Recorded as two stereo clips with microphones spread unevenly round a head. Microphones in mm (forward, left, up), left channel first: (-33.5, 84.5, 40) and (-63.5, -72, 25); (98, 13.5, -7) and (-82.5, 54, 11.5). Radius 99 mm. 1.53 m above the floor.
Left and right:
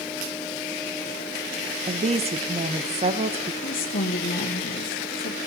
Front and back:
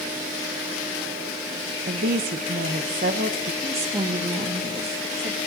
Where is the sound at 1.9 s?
150° right, 1.0 m.